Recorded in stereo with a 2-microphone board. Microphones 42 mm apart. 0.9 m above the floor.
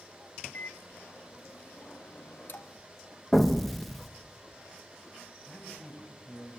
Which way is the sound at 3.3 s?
5° left (ahead or behind).